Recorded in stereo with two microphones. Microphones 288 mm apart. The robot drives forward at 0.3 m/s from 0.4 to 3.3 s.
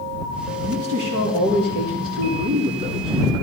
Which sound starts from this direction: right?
A man speaking, at 0.6 s.